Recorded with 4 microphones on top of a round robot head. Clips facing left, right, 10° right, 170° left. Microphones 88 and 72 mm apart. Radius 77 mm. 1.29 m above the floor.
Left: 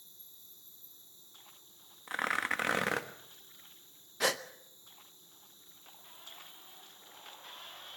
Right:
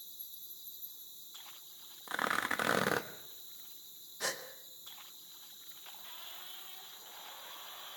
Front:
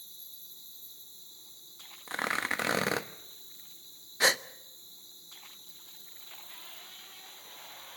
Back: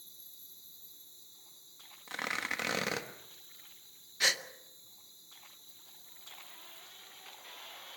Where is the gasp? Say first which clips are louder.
Left 8 dB, front 6 dB; 40° left, 0.6 m.